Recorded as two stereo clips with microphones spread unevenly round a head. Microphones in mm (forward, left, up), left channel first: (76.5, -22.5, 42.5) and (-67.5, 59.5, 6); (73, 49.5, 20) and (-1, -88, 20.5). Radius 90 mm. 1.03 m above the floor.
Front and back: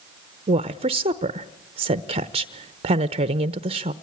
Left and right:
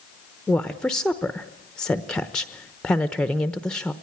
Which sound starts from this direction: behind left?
A woman speaking, at 0.5 s.